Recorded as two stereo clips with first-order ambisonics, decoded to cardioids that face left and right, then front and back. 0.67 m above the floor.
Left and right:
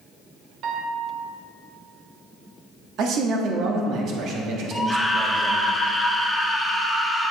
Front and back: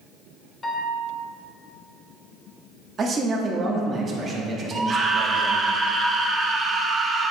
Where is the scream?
175° left, 0.5 m.